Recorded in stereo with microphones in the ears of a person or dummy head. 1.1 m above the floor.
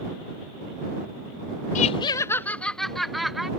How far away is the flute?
No flute in this recording.